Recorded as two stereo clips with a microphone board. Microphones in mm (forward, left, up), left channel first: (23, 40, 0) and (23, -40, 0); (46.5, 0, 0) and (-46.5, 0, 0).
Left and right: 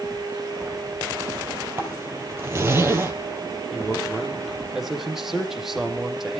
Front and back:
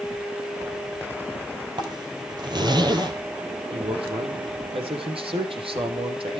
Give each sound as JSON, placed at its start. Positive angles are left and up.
{"t": 1.8, "sound": "a zipper", "azimuth_deg": -145, "distance_m": 3.0}
{"t": 3.7, "sound": "a man speaking", "azimuth_deg": -175, "distance_m": 3.5}